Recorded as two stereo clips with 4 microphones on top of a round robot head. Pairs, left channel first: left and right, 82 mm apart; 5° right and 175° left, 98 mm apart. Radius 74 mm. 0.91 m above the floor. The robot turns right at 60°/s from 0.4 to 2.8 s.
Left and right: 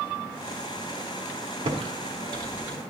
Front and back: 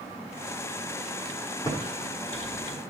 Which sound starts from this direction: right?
Typing on a keyboard, at 1.6 s.